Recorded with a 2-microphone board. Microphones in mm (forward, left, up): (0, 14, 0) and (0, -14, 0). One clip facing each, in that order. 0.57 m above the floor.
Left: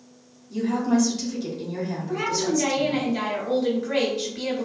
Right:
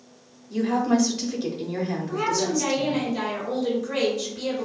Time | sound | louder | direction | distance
0.5 | a woman speaking | right 1 dB | 20° right (ahead or behind) | 0.9 m
2.1 | a woman speaking | left 1 dB | 40° left (ahead or behind) | 1.8 m